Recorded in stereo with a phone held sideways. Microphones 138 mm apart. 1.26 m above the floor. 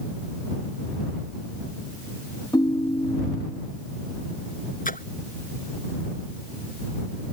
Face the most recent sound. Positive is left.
turn(degrees=85)